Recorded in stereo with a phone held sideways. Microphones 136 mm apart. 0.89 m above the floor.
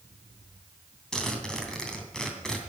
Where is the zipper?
5° left (ahead or behind), 2.5 m.